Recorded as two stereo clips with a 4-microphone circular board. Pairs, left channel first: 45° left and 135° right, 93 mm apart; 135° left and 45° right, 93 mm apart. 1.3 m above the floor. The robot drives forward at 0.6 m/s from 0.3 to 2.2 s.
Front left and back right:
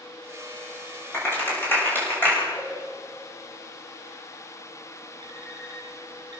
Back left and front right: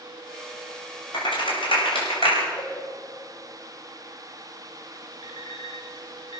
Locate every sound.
1.1 s a clap: 110° left, 6.5 m; by 2.5 s 115° left, 6.5 m
2.6 s a cowbell: 160° left, 2.5 m
5.2 s an alarm clock: straight behind, 5 m